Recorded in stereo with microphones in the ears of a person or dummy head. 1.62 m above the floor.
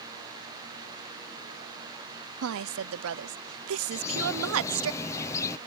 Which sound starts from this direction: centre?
A bird, at 3.9 s.